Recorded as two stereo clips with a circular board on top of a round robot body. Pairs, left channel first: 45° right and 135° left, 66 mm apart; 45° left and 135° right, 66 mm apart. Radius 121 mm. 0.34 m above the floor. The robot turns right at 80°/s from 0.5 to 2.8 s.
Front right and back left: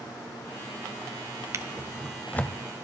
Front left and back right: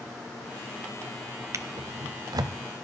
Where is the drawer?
Straight behind, 0.7 m; by 2.6 s 95° right, 0.7 m.